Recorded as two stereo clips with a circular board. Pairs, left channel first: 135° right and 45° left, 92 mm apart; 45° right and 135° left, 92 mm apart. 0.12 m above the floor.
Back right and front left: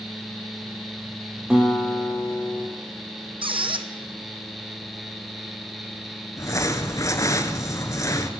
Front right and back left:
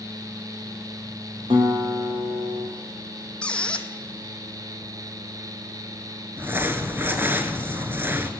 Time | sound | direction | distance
1.5 | a guitar | 125° left | 4 m
3.4 | a squeak | 35° left | 1.1 m
6.4 | crumpling | 170° right | 1.1 m